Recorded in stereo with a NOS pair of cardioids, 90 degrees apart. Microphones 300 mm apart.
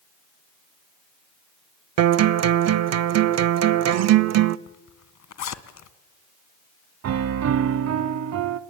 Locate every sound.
2.0 s a guitar: 60° right, 0.9 m
4.7 s a zipper: 65° left, 1.8 m
7.0 s a piano: 60° right, 1.1 m